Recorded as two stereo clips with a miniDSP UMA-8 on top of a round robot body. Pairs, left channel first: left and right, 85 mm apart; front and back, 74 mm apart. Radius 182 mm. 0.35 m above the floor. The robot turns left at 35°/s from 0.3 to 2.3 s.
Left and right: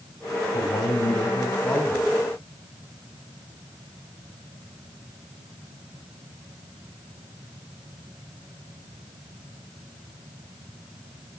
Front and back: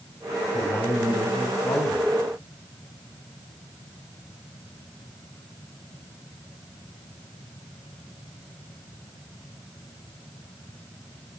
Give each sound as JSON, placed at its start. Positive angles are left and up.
{"t": 0.5, "sound": "a man speaking", "azimuth_deg": 70, "distance_m": 3.5}